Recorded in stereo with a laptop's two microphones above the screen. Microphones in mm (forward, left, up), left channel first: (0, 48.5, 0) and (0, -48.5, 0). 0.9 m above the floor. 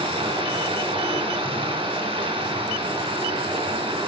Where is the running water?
75° right (ahead or behind), 1.8 m.